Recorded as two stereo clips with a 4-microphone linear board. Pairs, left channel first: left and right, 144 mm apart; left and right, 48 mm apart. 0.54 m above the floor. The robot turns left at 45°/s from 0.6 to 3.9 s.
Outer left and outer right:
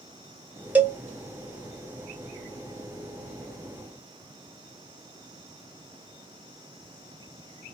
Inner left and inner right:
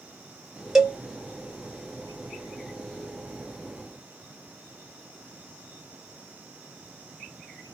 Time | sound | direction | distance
0.8 | a cowbell | 10° right (ahead or behind) | 0.7 m